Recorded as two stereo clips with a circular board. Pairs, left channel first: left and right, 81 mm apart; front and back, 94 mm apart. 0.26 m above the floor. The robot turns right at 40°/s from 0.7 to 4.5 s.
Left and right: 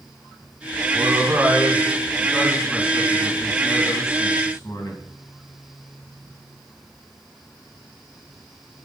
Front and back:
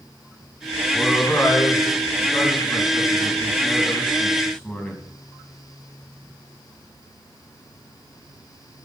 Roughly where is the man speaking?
Right.